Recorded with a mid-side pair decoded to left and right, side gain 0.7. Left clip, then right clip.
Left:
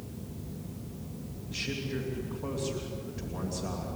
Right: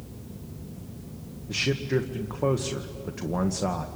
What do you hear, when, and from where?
1.5 s a man speaking: 65° right, 1.7 m